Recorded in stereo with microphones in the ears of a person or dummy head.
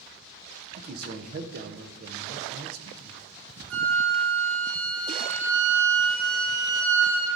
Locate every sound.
0.8 s a man speaking: 50° right (ahead or behind), 0.5 m
3.7 s a flute: 65° right (ahead or behind), 0.8 m